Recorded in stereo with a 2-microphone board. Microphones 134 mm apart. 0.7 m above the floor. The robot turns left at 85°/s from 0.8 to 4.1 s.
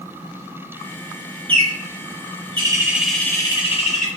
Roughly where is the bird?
Ahead right.